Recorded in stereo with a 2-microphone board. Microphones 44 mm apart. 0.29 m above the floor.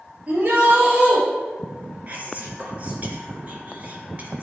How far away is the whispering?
About 3.5 m.